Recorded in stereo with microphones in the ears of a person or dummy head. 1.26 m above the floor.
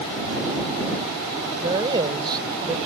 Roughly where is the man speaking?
Right.